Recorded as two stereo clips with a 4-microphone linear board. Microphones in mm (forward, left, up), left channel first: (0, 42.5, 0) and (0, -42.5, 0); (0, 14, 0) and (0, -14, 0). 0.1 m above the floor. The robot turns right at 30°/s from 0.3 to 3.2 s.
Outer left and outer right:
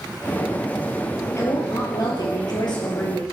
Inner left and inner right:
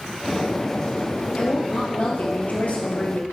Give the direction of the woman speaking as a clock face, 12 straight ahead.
11 o'clock.